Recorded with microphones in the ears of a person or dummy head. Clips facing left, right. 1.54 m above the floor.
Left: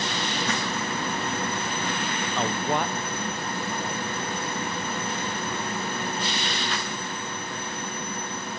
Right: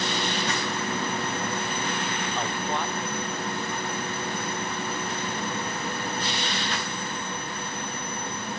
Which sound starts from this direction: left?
A man speaking, at 2.4 s.